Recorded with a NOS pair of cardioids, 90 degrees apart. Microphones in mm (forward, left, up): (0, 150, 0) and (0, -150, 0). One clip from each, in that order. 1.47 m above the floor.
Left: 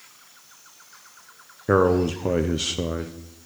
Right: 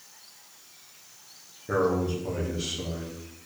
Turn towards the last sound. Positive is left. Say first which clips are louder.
# left 6 dB
turn(degrees=65)